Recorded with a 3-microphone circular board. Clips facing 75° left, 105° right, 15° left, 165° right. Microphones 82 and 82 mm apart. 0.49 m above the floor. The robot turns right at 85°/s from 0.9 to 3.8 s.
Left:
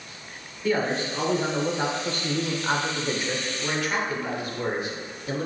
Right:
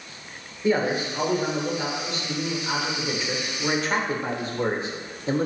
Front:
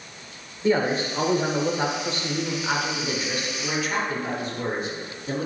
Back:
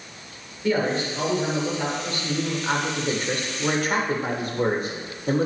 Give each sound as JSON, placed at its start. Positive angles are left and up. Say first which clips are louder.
{"t": 0.6, "sound": "a man speaking", "louder": "right 2 dB, front 1 dB", "azimuth_deg": -40, "distance_m": 1.4}